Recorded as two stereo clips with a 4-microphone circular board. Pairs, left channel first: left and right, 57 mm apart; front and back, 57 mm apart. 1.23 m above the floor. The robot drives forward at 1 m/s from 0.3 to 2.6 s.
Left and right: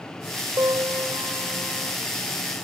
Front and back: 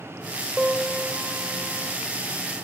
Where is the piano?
105° right; by 2.0 s 115° right.